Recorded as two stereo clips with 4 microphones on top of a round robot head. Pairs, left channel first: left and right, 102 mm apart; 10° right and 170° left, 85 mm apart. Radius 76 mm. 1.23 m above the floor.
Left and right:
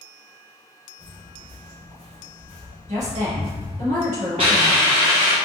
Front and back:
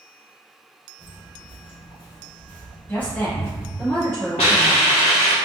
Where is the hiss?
40° right, 1.2 m.